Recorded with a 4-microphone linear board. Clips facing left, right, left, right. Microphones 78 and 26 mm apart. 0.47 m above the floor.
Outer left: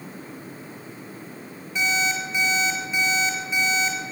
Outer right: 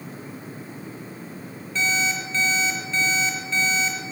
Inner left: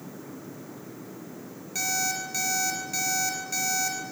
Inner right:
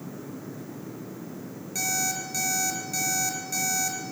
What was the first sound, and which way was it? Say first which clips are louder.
An alarm clock: even, even; 15° left (ahead or behind).